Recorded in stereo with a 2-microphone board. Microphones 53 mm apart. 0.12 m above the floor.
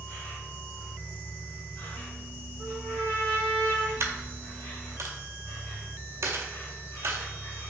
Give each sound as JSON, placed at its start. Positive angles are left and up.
{"t": 0.0, "sound": "an insect", "side_deg": 35, "distance_m": 1.5}
{"t": 2.6, "sound": "a trumpet", "side_deg": 50, "distance_m": 1.9}
{"t": 4.0, "sound": "a dropped coin", "side_deg": -60, "distance_m": 0.5}